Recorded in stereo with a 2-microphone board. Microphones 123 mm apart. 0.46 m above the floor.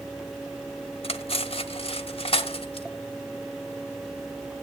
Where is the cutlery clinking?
50° left (ahead or behind), 1.0 m.